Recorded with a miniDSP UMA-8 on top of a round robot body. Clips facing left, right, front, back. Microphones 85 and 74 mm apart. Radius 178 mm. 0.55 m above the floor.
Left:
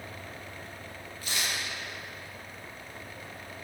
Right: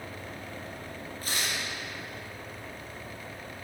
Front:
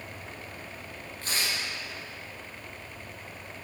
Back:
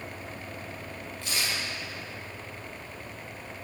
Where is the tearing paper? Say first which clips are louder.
Even, even; 45° right, 1.5 m.